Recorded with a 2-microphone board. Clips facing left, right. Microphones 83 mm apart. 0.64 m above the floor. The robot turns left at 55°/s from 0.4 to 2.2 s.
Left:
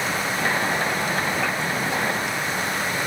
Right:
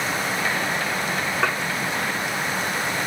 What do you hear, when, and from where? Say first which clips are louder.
1.4 s dishes clattering: right 2 dB; 65° right (ahead or behind), 0.7 m; by 1.6 s 70° right (ahead or behind), 0.7 m